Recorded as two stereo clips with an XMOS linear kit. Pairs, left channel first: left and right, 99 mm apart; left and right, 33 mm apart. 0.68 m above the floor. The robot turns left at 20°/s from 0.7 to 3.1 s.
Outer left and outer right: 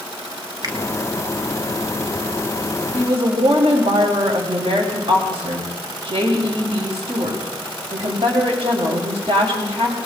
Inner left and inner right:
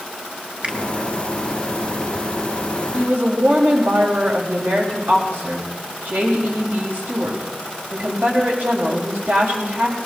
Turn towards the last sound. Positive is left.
turn(degrees=-75)  # may be behind; listen again after turning